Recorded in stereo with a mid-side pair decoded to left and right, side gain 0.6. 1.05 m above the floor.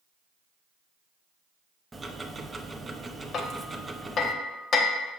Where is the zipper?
I don't hear a zipper.